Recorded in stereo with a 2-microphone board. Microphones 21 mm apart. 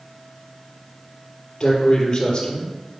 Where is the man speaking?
35° left (ahead or behind), 3 m.